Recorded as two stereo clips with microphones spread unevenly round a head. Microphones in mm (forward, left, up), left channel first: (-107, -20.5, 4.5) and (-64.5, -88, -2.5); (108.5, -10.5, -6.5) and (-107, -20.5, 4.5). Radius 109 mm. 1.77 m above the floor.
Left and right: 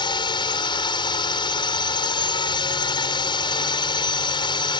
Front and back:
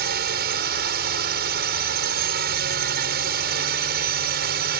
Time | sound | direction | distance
0.0 | a drone | 135° left | ?